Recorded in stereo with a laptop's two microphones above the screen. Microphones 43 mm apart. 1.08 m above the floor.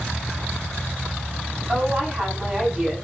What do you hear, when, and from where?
1.7 s a woman speaking: 25° right (ahead or behind), 8.5 m